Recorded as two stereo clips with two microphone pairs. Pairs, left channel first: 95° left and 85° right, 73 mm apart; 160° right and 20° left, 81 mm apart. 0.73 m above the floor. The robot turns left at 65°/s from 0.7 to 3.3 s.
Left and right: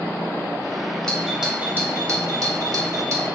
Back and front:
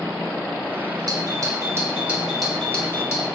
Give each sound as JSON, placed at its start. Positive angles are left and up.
{"t": 1.1, "sound": "a doorbell", "azimuth_deg": 15, "distance_m": 2.5}